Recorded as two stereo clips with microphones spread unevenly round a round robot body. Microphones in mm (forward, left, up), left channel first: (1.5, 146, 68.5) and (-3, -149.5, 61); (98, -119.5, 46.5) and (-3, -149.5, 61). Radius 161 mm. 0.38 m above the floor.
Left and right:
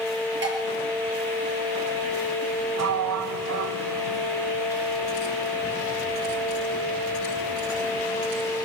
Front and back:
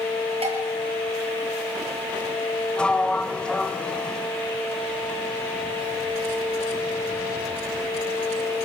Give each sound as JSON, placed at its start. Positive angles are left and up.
{"t": 0.4, "sound": "dishes clattering", "azimuth_deg": -145, "distance_m": 6.5}
{"t": 2.8, "sound": "a sliding door", "azimuth_deg": -60, "distance_m": 1.2}